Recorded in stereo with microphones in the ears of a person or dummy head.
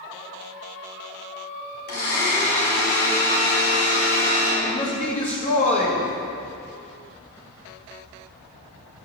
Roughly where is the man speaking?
Left.